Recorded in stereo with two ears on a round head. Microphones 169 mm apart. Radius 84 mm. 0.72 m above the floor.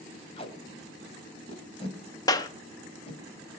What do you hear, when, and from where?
0.4 s tape being pulled: 30° left (ahead or behind), 2.5 m
2.3 s a clap: 20° left (ahead or behind), 1.0 m